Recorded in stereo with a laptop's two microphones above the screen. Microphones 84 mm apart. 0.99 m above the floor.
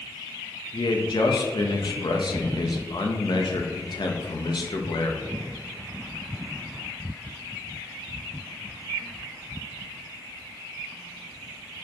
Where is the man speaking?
60° left (ahead or behind), 1.0 m.